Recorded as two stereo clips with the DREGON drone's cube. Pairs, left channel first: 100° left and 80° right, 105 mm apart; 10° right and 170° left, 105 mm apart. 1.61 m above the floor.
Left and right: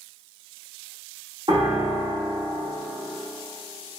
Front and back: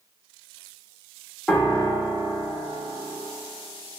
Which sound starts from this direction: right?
A piano, at 1.5 s.